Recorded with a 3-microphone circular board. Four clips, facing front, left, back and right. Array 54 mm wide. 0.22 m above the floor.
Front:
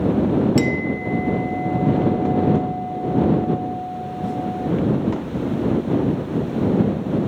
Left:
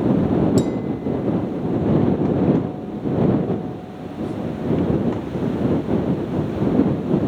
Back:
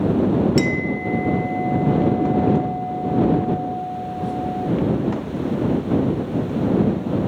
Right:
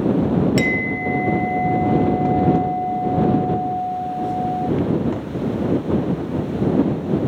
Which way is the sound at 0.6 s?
95° right.